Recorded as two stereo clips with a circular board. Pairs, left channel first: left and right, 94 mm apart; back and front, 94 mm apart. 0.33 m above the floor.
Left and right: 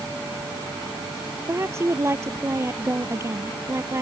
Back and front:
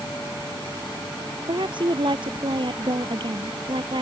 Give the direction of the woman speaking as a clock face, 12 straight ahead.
1 o'clock.